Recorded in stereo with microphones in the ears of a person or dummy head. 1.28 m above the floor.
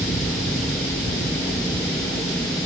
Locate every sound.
Only background noise.